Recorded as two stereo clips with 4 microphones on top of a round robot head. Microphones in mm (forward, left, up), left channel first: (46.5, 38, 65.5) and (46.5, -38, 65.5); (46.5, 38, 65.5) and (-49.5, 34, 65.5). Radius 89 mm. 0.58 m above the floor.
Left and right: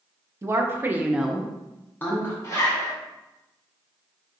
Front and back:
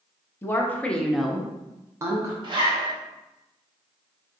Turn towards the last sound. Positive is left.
turn(degrees=145)